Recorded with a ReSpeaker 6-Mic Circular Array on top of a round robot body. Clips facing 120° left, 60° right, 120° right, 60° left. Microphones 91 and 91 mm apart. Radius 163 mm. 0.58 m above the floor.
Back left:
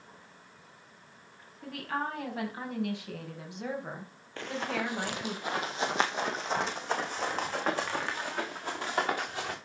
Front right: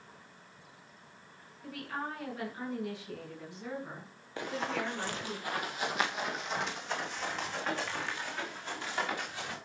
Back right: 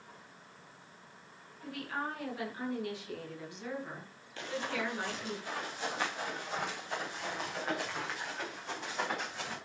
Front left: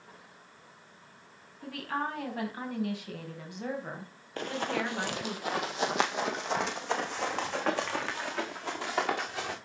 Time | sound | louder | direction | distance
1.6 | a woman speaking | back left 4 dB, front left 4 dB | 95° left | 5.5 m
4.4 | running footsteps | back left 1 dB, front left 4 dB | 15° left | 0.9 m